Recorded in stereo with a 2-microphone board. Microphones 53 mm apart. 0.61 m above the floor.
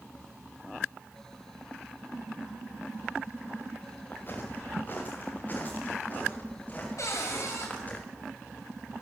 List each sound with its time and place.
4.1 s footsteps: 40° left (ahead or behind), 3 m; by 8.0 s 25° left (ahead or behind), 5.5 m
7.0 s a cupboard door: 65° left (ahead or behind), 3.5 m